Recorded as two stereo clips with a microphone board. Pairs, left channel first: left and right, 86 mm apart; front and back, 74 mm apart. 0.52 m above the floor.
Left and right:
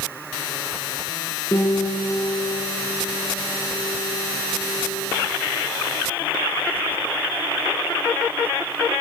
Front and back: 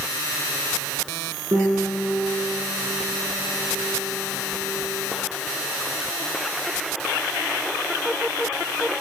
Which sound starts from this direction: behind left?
A piano, at 1.5 s.